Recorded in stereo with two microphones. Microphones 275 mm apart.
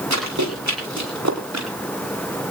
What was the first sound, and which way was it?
Running footsteps, 85° right.